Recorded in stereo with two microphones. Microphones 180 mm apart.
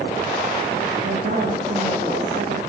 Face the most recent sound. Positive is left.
turn(degrees=-65)  # may be behind; listen again after turning